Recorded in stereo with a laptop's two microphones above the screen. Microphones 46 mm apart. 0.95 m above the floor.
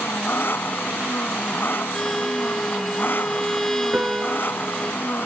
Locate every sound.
0.0 s an engine running: 50° left (ahead or behind)
1.9 s a violin: 10° left (ahead or behind)
3.9 s a piano: 25° right (ahead or behind)